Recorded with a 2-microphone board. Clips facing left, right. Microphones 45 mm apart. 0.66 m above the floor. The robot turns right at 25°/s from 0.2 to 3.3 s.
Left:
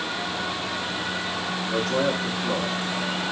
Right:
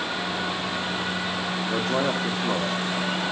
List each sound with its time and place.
1.7 s a man speaking: 65° right, 0.7 m; by 3.3 s 25° right, 0.7 m